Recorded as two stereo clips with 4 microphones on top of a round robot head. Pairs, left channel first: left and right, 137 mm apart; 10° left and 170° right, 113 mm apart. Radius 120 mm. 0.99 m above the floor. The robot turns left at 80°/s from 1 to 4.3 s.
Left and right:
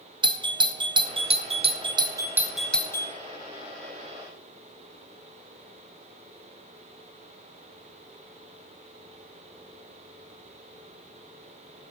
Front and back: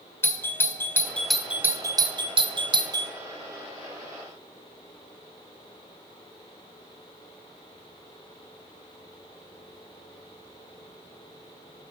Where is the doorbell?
50° right, 0.7 m; by 3.1 s 140° left, 0.7 m.